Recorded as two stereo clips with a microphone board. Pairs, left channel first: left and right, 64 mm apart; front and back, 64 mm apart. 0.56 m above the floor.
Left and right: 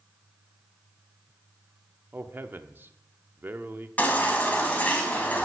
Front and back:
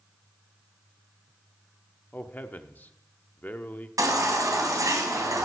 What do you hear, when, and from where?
2.1 s a man speaking: 50° right, 0.8 m
4.0 s a baby crying: 155° left, 2.5 m